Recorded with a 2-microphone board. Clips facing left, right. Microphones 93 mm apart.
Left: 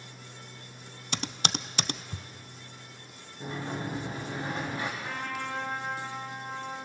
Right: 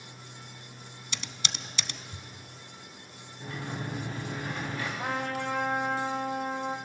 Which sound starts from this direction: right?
A trumpet, at 5.0 s.